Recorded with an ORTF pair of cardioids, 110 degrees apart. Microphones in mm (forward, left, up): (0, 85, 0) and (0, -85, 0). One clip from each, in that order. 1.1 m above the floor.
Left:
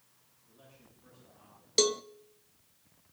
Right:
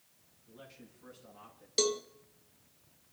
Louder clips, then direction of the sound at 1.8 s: Left 3 dB; 20° left.